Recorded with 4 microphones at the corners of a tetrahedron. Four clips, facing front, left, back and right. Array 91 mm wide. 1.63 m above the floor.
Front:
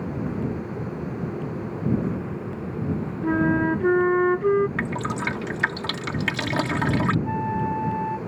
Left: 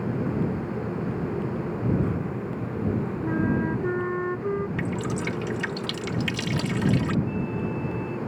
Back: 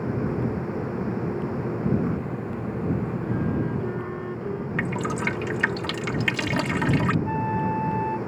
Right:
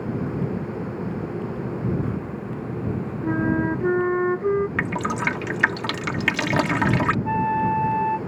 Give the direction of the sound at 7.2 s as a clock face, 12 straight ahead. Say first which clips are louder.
Right 8 dB, even; 3 o'clock.